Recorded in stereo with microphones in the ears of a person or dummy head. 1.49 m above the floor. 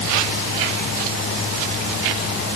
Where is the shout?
I don't hear a shout.